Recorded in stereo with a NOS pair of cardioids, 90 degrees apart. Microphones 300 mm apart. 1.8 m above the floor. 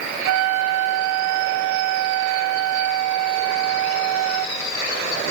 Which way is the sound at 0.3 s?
65° right.